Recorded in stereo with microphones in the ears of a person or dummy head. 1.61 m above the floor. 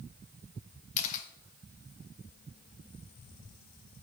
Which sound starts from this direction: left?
A camera shutter, at 1.0 s.